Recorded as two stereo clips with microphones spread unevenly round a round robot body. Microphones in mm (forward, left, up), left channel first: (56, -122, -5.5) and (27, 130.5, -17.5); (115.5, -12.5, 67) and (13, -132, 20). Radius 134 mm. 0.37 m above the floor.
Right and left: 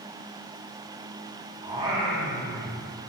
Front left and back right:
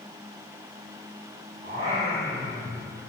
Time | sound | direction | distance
1.6 | singing | 165° left | 1.7 m